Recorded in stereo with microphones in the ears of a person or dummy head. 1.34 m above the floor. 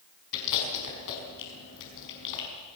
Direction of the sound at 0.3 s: 70° left (ahead or behind).